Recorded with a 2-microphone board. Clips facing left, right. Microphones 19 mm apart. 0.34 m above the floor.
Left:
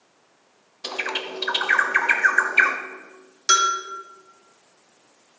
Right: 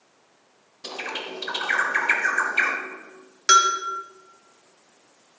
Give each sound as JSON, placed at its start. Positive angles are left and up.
{"t": 0.8, "sound": "a bird", "side_deg": 30, "distance_m": 0.8}
{"t": 3.5, "sound": "a bell", "side_deg": -20, "distance_m": 1.4}